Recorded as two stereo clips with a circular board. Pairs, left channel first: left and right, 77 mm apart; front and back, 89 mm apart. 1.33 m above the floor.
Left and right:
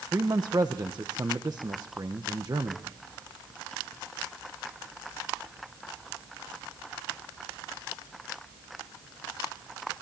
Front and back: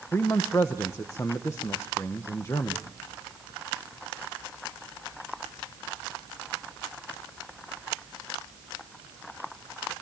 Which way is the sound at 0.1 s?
55° right.